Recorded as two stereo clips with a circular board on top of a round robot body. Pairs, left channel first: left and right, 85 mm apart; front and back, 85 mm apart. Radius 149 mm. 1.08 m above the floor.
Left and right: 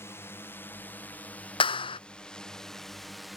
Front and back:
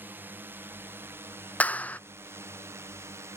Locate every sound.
0.0 s a drone: 130° left; by 3.4 s straight behind
1.6 s a clap: 75° left